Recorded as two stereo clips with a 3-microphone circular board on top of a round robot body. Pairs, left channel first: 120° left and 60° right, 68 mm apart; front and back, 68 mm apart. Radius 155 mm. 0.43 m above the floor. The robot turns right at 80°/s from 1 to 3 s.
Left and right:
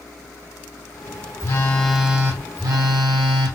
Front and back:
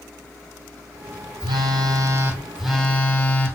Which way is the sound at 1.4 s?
165° left.